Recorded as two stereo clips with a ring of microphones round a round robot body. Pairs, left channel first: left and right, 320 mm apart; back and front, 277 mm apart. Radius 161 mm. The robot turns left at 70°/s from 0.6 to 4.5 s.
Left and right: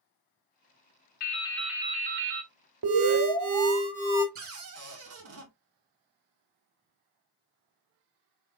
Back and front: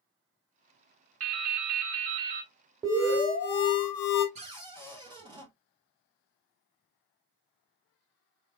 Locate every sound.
1.2 s dripping: 30° left, 0.8 m; by 2.5 s 60° right, 0.8 m
2.8 s an alarm: 75° right, 1.1 m; by 4.2 s 175° right, 1.1 m
4.3 s a cupboard door: 60° right, 1.1 m; by 5.5 s 70° right, 1.1 m